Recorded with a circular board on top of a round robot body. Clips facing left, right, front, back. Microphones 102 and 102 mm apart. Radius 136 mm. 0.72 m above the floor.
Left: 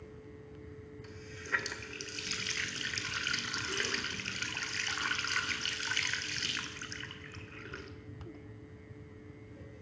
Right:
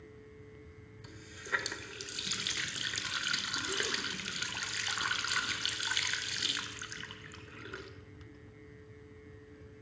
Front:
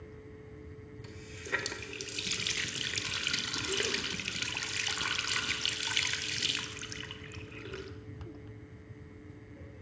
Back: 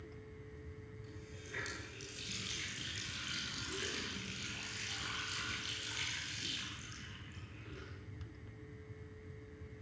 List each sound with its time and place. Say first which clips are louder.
1.0 s a running tap: right 2 dB, front 8 dB; 10° right, 2 m